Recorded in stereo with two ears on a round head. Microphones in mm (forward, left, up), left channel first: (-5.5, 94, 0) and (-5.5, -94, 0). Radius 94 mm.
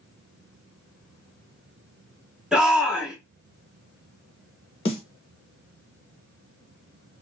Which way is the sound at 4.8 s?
30° left (ahead or behind).